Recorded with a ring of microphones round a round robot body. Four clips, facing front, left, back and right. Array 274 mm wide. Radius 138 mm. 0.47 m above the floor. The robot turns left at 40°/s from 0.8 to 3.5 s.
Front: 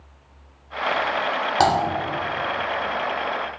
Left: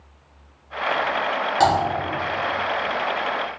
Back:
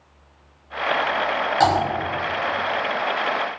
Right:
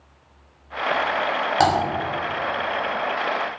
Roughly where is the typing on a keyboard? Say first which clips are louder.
Left 1 dB, even; ahead right.